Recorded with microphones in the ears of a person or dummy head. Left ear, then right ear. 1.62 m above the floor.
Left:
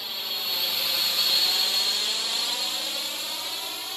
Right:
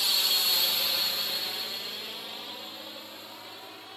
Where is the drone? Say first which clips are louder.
Right 5 dB; 15° right (ahead or behind); by 4.0 s 80° left.